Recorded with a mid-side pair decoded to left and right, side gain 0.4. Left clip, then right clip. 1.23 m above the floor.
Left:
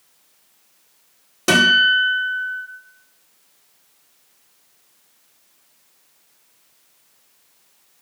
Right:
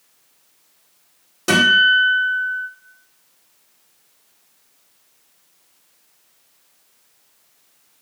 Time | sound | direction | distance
1.5 | a guitar | 35° left | 1.3 m